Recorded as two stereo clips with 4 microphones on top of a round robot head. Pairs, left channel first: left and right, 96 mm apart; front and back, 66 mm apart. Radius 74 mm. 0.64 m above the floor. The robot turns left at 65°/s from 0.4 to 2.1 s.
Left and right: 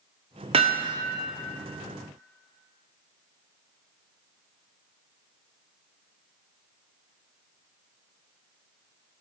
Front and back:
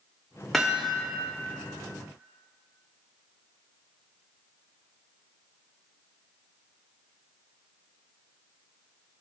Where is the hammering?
90° right, 0.9 m; by 1.0 s 115° right, 0.9 m.